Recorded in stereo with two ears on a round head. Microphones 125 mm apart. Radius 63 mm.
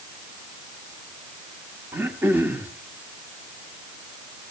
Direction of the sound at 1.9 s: 15° right (ahead or behind).